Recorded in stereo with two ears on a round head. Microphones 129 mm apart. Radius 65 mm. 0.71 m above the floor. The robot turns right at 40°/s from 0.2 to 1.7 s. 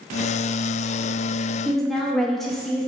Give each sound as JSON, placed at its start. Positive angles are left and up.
{"t": 1.6, "sound": "a woman speaking", "side_deg": 0, "distance_m": 0.5}